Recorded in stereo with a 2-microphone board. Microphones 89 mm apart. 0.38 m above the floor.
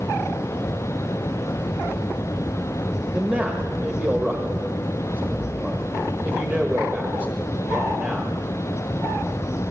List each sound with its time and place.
3.1 s a man speaking: 15° right (ahead or behind), 1.1 m